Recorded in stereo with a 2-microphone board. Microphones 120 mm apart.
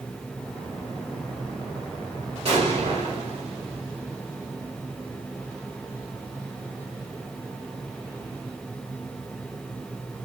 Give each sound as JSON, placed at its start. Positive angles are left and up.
{"t": 2.5, "sound": "an explosion", "side_deg": -50, "distance_m": 1.8}